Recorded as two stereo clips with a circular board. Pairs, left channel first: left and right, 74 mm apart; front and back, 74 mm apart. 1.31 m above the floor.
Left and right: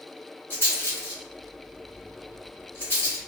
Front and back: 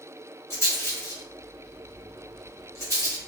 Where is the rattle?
40° left, 1.5 m.